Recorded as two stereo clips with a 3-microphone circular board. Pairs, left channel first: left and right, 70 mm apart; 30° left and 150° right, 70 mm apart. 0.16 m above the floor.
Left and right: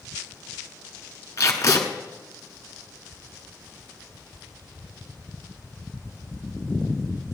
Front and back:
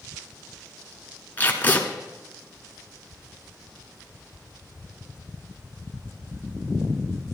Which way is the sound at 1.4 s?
85° left.